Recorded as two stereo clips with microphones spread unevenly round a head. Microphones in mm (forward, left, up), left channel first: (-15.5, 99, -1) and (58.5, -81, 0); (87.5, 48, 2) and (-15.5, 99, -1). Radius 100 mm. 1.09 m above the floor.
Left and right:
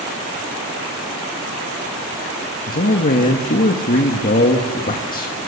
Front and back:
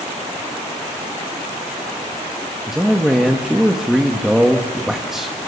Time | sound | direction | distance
2.7 | a man speaking | 65° left | 1.5 m